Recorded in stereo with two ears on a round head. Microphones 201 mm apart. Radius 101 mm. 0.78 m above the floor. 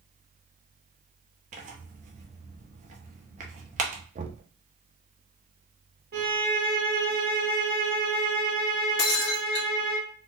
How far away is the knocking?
About 0.5 m.